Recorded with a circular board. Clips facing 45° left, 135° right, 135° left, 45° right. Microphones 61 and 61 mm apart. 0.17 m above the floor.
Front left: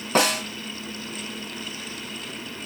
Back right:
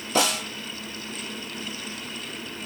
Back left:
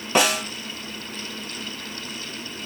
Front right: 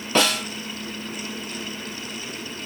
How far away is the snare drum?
About 1.1 m.